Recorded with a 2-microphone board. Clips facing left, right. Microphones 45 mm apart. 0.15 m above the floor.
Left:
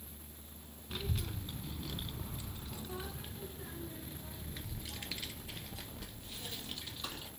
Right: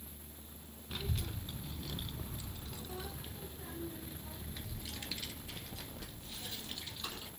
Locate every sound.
0.9 s a child speaking: 5° left (ahead or behind), 1.0 m; by 7.3 s 15° left (ahead or behind), 3 m